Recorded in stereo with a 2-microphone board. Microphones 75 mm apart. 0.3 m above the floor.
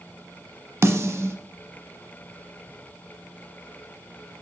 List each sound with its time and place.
0.8 s a snare drum: 40° right (ahead or behind), 0.7 m